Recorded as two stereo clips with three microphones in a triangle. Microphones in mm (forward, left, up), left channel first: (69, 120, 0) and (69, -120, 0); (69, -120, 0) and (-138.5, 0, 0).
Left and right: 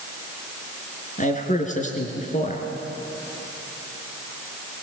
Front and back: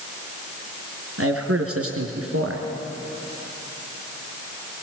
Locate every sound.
1.2 s a man speaking: 145° left, 3 m